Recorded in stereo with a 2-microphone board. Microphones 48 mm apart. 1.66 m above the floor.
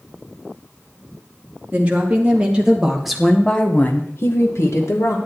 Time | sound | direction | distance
1.7 | a woman speaking | 30° right (ahead or behind) | 3 m